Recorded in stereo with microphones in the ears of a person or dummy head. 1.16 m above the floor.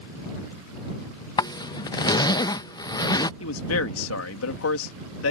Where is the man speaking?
80° left.